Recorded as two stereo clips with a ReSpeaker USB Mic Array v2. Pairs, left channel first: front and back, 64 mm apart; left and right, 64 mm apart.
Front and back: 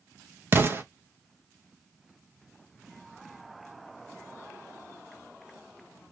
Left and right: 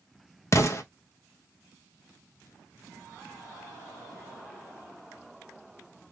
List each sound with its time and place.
0.5 s an explosion: 130° left, 0.6 m